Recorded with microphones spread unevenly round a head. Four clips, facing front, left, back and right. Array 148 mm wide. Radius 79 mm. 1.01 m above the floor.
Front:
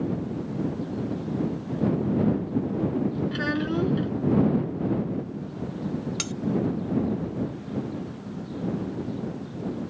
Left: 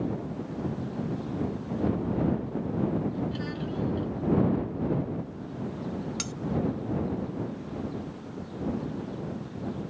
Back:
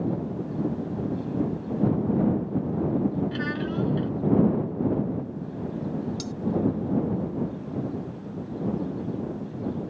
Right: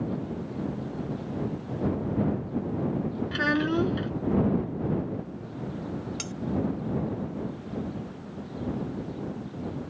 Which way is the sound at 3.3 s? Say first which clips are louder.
Right 8 dB, front 2 dB; 65° right.